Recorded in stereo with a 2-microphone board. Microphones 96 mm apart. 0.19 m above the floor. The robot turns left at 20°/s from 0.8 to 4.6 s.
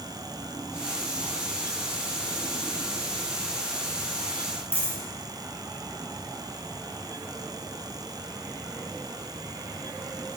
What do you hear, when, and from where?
4.7 s a dropped coin: 70° left (ahead or behind), 2.5 m